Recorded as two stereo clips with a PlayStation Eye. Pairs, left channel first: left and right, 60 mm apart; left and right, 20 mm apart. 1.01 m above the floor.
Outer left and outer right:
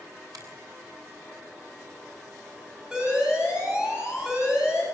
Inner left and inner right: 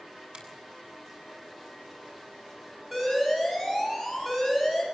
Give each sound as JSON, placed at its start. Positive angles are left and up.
{"t": 0.3, "sound": "a finger snap", "side_deg": -70, "distance_m": 8.0}
{"t": 2.9, "sound": "an alarm", "side_deg": -10, "distance_m": 10.0}